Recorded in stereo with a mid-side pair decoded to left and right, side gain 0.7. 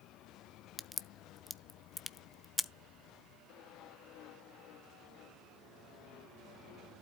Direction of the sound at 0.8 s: 10° left.